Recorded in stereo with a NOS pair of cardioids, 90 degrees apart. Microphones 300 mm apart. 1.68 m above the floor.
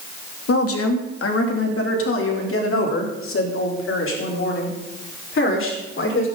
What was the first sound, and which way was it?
A woman speaking, 50° left.